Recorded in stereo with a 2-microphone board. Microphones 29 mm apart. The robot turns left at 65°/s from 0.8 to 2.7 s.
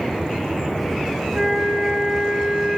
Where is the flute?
55° right, 5 m; by 2.8 s 145° right, 5 m.